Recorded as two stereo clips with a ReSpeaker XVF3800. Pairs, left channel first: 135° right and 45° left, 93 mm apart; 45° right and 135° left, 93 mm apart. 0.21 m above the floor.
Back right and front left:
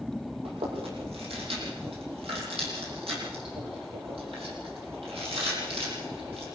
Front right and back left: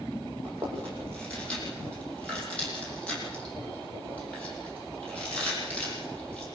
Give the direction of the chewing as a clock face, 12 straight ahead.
11 o'clock.